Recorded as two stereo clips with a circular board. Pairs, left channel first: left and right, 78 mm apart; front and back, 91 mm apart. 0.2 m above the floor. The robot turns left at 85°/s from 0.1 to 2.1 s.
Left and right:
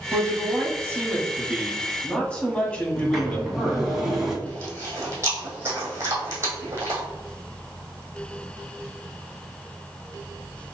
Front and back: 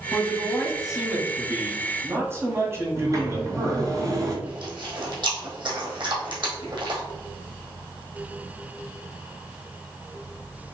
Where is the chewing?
145° right, 2 m.